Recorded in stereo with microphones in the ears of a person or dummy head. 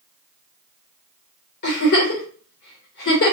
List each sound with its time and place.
1.6 s a giggle: 55° left (ahead or behind), 1.8 m